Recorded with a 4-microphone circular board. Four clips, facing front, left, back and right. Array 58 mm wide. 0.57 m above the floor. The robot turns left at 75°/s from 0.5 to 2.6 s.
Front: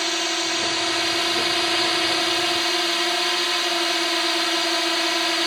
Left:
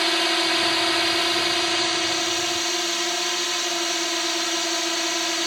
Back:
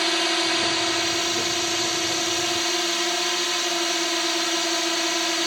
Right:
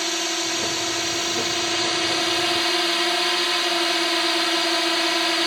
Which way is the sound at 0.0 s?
105° left.